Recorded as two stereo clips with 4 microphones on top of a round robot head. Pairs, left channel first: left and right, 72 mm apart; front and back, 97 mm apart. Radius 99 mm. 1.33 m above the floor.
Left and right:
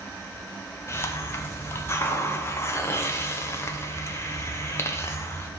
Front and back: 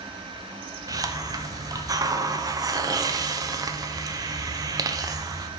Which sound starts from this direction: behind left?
A hiss, at 0.9 s.